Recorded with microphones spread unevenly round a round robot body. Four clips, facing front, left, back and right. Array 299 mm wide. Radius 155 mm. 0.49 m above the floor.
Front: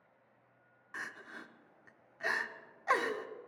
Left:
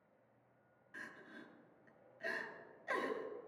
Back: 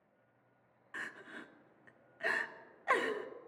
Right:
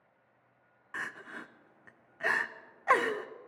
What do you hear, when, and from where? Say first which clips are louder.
0.9 s crying: right 12 dB, front 1 dB; 85° right, 0.7 m